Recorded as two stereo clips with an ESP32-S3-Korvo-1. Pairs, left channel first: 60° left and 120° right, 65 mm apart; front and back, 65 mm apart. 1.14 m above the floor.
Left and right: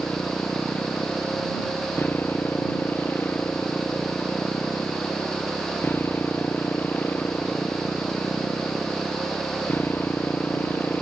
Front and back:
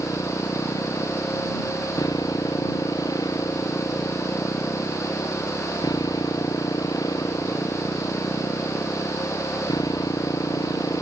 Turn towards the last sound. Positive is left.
turn(degrees=5)